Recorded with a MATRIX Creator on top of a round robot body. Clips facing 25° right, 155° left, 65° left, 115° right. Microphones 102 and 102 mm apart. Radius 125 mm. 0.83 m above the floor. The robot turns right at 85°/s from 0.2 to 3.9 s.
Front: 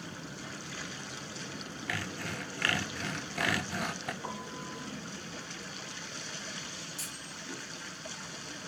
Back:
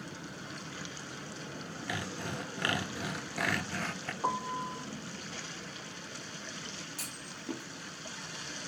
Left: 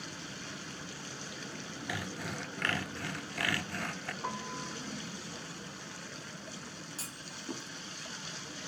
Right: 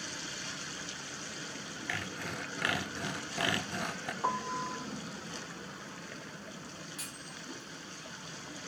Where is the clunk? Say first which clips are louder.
Even, even; 125° left, 1.2 m.